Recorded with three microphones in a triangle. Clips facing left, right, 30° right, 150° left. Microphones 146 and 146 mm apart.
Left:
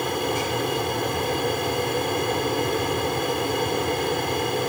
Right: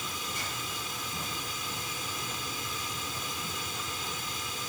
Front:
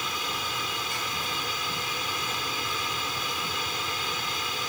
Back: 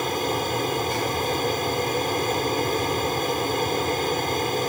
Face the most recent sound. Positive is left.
turn(degrees=110)